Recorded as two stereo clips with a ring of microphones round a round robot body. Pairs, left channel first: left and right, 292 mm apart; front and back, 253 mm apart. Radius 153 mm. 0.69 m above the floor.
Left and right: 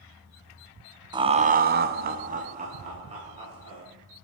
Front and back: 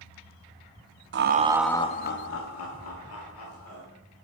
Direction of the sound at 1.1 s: 160° right.